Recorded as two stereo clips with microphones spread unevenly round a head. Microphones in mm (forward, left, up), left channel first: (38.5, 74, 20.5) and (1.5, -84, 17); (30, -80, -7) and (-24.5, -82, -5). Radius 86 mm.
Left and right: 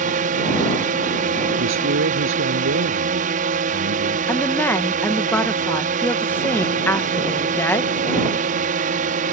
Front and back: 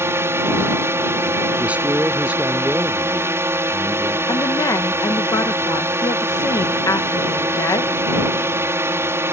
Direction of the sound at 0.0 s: 145° right.